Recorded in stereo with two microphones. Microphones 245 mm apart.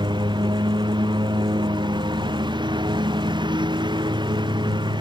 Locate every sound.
0.0 s a lawn mower: 20° right (ahead or behind)